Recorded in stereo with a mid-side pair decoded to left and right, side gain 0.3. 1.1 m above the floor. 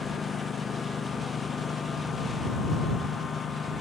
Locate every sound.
0.0 s a lawn mower: 65° left